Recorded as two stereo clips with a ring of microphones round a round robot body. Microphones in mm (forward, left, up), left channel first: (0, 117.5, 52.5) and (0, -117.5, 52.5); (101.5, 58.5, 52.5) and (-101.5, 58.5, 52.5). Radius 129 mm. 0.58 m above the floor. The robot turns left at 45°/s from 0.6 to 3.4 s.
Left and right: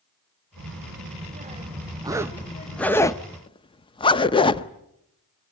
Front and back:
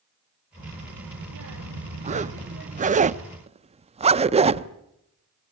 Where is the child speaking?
115° right, 1.8 m; by 3.0 s 135° left, 1.8 m.